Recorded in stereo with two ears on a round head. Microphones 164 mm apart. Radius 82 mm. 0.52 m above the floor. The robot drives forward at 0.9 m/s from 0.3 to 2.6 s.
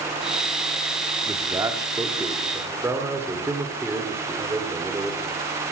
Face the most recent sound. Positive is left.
turn(degrees=-15)  # may be behind; listen again after turning